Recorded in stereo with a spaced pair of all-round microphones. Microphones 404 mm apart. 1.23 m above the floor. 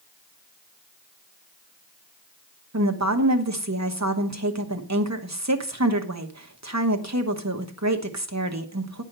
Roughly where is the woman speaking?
Right.